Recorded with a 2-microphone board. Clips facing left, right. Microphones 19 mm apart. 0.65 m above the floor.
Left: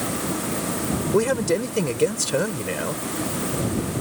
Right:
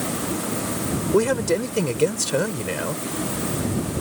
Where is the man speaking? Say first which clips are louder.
Right 1 dB; 10° right (ahead or behind).